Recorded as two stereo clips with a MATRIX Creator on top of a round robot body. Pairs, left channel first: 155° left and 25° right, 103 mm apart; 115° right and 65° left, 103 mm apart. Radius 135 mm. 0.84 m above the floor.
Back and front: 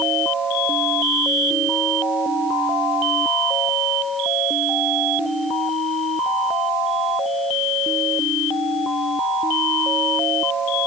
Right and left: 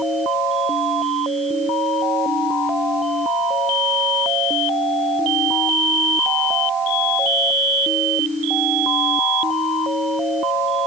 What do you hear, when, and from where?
Only background noise.